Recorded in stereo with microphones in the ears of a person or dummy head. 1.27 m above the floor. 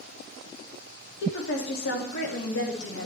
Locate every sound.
1.2 s a woman speaking: 60° left (ahead or behind), 2.5 m; by 3.1 s 75° left (ahead or behind), 1.8 m